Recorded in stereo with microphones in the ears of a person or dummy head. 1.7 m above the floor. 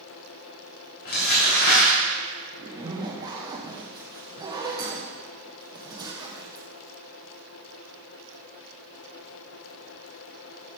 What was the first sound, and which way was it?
Crumpling, 50° left (ahead or behind).